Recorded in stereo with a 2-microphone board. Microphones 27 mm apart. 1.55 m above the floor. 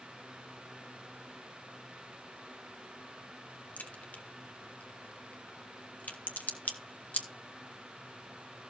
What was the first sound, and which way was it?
A crack, 80° left.